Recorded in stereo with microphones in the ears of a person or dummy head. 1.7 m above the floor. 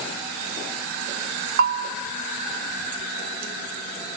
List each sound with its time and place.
1.6 s a bell: 40° right (ahead or behind), 0.6 m